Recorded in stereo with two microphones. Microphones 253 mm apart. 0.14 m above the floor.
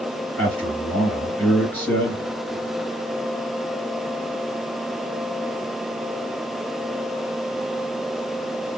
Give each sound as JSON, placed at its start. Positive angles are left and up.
{"t": 0.4, "sound": "a man speaking", "side_deg": 5, "distance_m": 2.5}